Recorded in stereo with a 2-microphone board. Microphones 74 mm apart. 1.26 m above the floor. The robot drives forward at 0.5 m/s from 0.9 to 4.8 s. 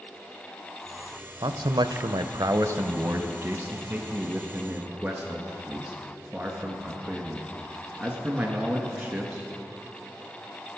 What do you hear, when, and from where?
1.4 s a man speaking: 70° right (ahead or behind), 0.5 m; by 9.4 s 15° right (ahead or behind), 1.6 m